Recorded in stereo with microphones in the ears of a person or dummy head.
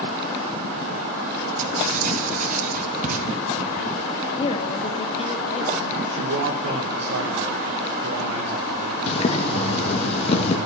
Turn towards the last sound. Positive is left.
turn(degrees=30)  # may be behind; listen again after turning